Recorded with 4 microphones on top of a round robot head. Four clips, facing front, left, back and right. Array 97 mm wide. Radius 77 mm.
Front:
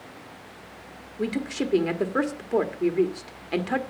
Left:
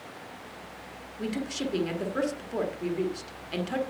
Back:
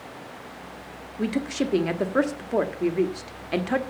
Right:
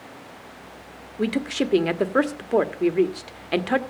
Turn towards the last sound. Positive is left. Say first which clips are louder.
# right 8 dB, back 2 dB
turn(degrees=-90)